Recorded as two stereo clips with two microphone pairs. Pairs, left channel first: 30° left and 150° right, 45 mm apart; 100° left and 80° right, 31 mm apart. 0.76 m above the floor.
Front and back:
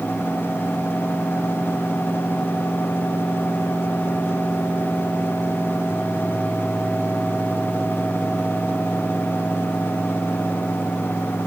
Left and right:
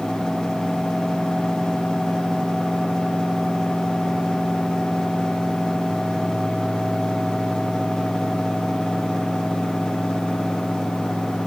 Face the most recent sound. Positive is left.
No sound to turn to.